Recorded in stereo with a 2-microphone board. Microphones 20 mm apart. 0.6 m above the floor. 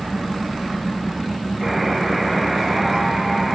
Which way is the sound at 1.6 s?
5° right (ahead or behind).